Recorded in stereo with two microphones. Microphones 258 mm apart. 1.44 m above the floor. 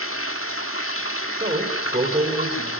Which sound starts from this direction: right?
A man speaking, at 1.4 s.